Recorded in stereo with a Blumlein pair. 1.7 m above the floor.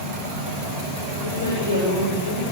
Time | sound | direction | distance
1.2 | a woman speaking | 65° left | 7.5 m